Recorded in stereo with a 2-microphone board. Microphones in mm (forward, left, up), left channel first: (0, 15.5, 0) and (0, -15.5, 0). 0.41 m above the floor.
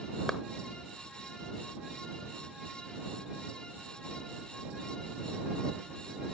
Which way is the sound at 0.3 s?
5° left (ahead or behind).